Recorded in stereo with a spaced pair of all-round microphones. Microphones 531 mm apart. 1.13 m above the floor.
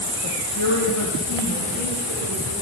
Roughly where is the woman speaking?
Left.